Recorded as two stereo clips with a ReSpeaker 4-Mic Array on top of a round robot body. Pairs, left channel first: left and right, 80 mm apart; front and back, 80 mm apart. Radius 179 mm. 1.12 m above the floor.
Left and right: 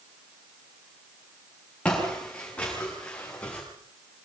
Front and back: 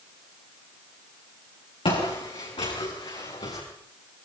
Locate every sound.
1.9 s footsteps: 15° left, 7 m